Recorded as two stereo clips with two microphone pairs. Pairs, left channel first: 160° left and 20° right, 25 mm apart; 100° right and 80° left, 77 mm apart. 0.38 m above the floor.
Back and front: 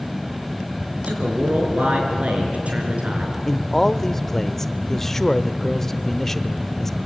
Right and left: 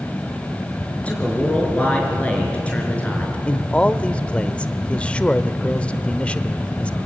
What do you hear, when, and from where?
1.0 s a man speaking: 30° right, 5.5 m
3.5 s a man speaking: 145° right, 0.8 m